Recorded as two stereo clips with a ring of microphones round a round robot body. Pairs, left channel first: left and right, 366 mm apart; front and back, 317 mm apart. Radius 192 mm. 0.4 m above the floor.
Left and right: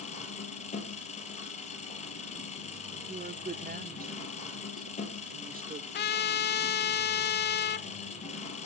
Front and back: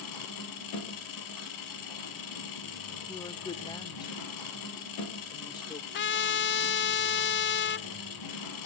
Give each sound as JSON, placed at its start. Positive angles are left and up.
{"t": 0.0, "sound": "an engine running", "azimuth_deg": 15, "distance_m": 4.0}
{"t": 3.1, "sound": "a woman speaking", "azimuth_deg": -60, "distance_m": 1.0}
{"t": 5.9, "sound": "a trumpet", "azimuth_deg": 40, "distance_m": 0.8}